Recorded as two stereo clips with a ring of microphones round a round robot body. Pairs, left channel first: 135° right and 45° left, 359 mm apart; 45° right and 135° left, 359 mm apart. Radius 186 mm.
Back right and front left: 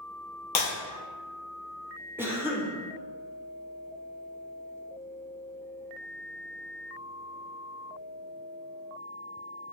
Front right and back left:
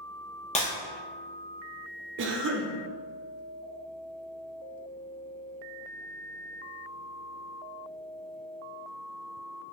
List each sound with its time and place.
0.6 s breaking glass: 110° right, 0.9 m
2.2 s a cough: 125° left, 0.5 m